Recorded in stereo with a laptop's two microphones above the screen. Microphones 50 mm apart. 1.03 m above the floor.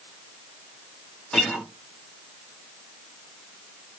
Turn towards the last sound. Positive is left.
turn(degrees=10)  # may be behind; listen again after turning